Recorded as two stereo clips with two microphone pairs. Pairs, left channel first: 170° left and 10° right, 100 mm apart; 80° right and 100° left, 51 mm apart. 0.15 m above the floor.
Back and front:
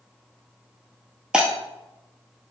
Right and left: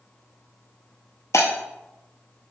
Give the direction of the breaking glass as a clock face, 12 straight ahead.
3 o'clock.